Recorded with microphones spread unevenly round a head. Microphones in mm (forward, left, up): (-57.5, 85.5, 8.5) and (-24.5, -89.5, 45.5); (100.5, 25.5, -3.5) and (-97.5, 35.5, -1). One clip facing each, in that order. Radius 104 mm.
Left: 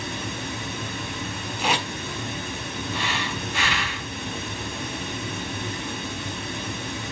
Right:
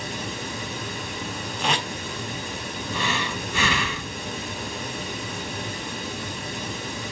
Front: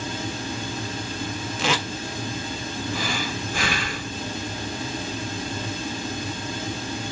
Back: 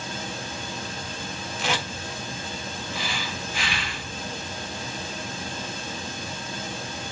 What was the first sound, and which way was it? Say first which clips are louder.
Running water: even, front 4 dB; 30° left.